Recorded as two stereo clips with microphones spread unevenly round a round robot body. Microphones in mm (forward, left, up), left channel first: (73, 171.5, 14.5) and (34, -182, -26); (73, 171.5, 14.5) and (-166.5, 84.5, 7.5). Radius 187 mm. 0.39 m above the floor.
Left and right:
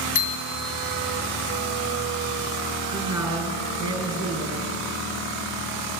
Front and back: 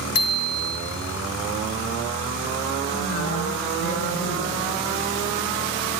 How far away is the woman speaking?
About 4 m.